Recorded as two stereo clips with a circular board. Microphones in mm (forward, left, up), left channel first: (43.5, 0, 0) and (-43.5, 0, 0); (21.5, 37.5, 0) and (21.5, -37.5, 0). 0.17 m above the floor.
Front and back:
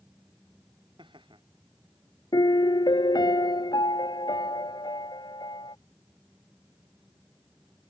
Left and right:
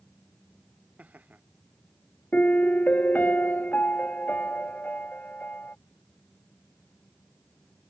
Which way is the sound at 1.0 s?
160° right.